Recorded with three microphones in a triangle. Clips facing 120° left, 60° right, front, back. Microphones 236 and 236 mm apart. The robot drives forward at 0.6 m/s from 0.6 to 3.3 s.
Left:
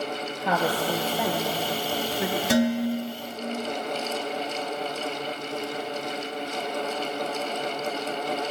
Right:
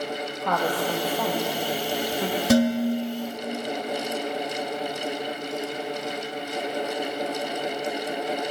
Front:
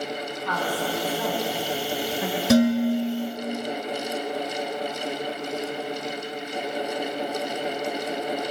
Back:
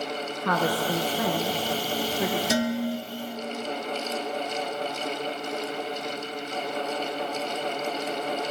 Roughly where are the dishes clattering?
Ahead.